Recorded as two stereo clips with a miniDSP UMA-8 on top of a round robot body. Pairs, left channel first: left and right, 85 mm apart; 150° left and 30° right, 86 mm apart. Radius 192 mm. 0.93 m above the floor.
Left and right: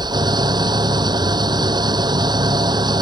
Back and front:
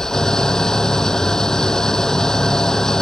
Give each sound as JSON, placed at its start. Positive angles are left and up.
{"t": 0.0, "sound": "an engine running", "azimuth_deg": -125}